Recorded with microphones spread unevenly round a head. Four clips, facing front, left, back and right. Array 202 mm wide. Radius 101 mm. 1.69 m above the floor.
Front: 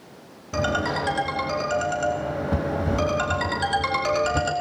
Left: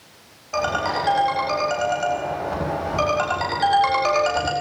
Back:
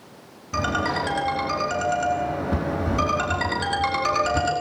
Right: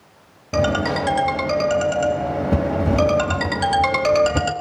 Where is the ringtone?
75° right, 4 m.